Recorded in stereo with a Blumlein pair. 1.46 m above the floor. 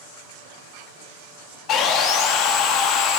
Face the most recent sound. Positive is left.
turn(degrees=35)